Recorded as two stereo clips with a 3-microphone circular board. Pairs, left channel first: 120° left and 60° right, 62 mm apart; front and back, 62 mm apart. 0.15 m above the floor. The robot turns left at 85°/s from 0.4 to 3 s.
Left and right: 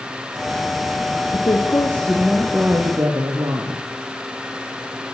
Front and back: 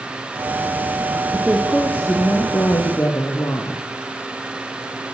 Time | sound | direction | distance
1.3 | a woman speaking | 110° left | 4.5 m